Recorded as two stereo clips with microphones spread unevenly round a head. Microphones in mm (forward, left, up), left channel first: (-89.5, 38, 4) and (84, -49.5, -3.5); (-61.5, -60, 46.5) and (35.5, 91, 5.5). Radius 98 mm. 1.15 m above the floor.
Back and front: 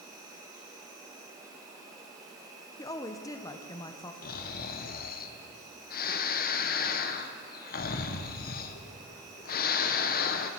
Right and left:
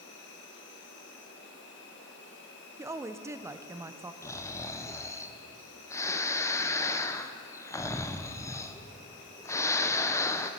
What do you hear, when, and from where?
0.0 s an insect: 95° right, 2 m
2.8 s a woman speaking: 90° left, 0.5 m
4.2 s snoring: 155° left, 0.6 m